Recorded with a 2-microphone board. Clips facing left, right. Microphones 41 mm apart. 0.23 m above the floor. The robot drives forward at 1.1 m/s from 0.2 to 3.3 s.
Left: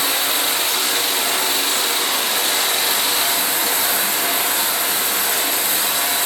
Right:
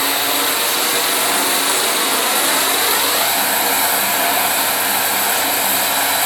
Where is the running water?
55° right (ahead or behind), 3 m.